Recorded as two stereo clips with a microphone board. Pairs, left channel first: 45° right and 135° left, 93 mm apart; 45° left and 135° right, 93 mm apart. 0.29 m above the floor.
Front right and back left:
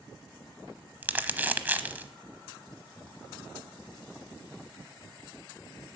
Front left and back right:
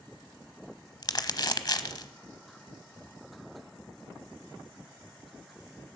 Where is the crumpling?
70° left, 0.9 m.